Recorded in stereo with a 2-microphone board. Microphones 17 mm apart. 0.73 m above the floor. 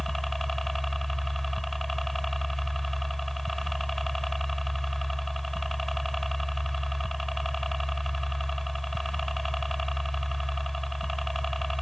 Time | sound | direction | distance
0.0 | a helicopter | 10° left (ahead or behind) | ?